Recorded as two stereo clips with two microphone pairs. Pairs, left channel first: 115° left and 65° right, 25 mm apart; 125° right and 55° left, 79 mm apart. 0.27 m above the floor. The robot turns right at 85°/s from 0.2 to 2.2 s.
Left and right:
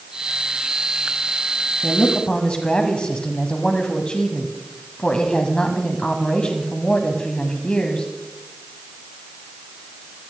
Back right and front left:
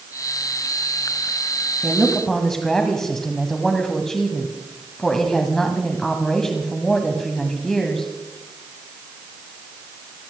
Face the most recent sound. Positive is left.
turn(degrees=150)